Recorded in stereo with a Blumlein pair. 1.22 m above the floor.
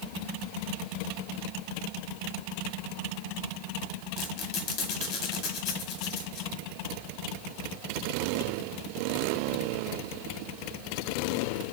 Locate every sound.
4.2 s a squeak: 40° left, 1.0 m